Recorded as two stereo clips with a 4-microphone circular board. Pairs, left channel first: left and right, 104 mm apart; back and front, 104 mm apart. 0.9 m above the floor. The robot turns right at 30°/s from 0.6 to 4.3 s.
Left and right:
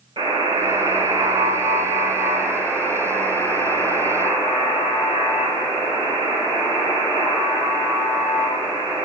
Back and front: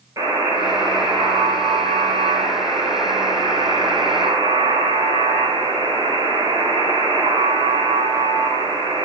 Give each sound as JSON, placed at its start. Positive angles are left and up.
{"t": 0.2, "sound": "a buzzer", "azimuth_deg": -55, "distance_m": 3.0}